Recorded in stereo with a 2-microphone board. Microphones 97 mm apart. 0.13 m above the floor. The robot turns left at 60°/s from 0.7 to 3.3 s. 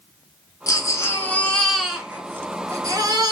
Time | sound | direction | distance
0.7 | a baby crying | 65° left | 0.7 m